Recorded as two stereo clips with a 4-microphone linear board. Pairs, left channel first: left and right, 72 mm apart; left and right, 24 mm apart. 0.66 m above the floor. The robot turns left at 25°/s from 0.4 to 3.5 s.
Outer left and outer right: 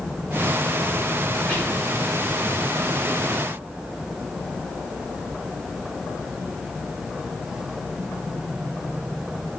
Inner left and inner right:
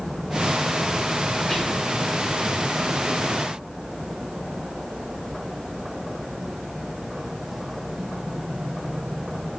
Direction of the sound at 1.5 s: 20° left (ahead or behind).